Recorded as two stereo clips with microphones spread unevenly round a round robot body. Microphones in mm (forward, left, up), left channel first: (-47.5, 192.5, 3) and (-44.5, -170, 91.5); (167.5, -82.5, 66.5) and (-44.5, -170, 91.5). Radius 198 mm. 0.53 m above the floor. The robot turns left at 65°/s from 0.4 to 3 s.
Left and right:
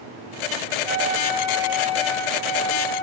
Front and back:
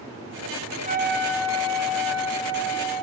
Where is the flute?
95° right, 4.5 m; by 3.0 s 125° left, 4.5 m.